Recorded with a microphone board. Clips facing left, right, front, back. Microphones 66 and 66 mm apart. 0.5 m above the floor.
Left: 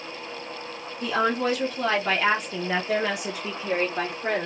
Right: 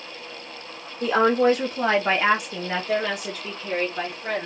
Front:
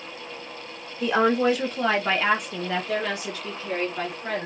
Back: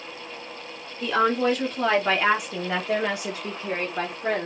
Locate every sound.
1.0 s a woman speaking: 65° right, 1.4 m; by 4.5 s 135° left, 1.5 m